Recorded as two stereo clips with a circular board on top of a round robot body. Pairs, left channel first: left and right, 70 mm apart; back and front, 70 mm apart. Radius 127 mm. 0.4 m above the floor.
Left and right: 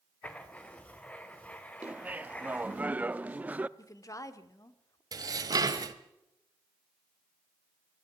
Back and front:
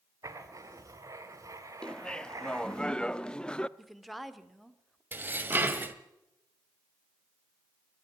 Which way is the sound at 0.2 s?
20° left.